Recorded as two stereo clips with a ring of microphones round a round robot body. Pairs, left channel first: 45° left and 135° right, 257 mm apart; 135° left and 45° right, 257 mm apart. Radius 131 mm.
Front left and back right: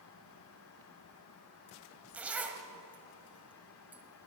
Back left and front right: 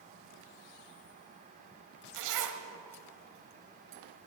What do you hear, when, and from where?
2.1 s a zipper: 50° right, 1.3 m